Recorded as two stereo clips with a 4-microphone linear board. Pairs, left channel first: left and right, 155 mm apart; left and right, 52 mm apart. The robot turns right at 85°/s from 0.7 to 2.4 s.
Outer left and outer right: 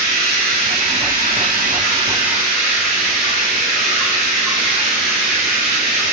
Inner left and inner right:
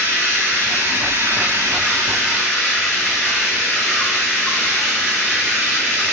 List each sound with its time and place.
0.0 s running water: 150° right, 8 m; by 6.1 s 5° right, 8 m